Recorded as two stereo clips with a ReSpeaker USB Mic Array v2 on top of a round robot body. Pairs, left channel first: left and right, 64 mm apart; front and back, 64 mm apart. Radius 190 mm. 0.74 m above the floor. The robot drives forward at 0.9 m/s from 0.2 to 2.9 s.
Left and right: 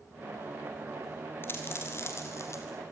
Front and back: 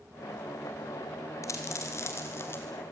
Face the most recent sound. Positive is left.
turn(degrees=55)